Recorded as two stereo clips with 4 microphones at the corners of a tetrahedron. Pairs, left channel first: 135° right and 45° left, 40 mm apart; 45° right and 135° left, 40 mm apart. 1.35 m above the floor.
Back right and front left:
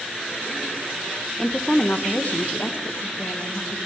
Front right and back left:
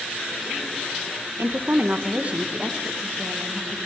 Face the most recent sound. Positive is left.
turn(degrees=-145)